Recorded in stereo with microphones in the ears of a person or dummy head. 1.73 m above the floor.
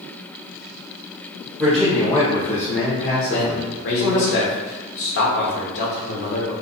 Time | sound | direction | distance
1.6 | a man speaking | 5° right (ahead or behind) | 0.7 m
3.3 | a man speaking | 60° left (ahead or behind) | 0.8 m